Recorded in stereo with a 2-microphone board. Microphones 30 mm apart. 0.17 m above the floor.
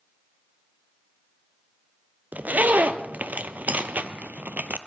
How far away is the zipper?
About 0.8 m.